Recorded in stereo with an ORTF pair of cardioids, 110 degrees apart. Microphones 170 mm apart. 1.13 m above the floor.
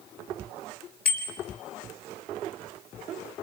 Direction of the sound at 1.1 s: 65° left.